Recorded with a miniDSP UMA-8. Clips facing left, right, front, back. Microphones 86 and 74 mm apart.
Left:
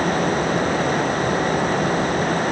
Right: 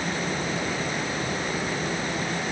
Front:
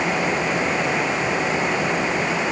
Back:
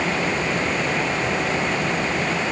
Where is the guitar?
I don't hear a guitar.